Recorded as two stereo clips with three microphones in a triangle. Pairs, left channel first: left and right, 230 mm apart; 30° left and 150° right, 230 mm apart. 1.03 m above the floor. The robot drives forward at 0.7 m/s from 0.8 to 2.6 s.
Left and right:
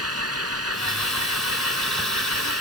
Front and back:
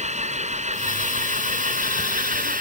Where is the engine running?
90° right; by 2.6 s 95° right.